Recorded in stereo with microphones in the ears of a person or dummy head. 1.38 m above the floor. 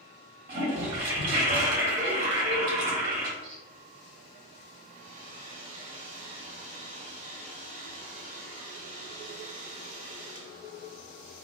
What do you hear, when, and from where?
0.5 s a toilet flushing: 35° right (ahead or behind), 1.3 m
3.4 s a squeak: 35° right (ahead or behind), 0.7 m
4.9 s a hair dryer: 40° right (ahead or behind), 0.6 m